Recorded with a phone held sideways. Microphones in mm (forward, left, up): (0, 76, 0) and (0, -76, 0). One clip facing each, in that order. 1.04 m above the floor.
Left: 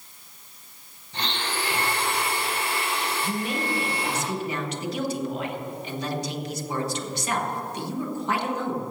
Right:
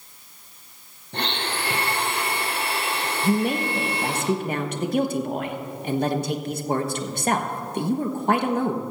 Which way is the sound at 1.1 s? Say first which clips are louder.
Right 2 dB; 60° right (ahead or behind).